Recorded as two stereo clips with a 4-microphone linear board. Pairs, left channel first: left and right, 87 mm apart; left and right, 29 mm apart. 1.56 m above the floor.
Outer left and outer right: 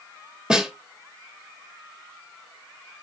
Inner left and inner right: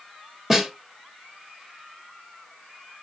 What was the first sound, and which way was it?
A snare drum, 10° right (ahead or behind).